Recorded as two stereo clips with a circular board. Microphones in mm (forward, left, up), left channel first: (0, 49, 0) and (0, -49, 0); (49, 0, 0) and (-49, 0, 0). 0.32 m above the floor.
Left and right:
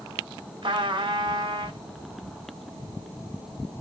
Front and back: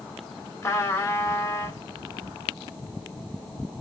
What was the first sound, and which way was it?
A trumpet, 60° right.